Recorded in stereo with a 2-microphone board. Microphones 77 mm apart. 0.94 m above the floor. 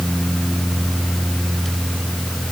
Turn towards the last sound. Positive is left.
No sound to turn to.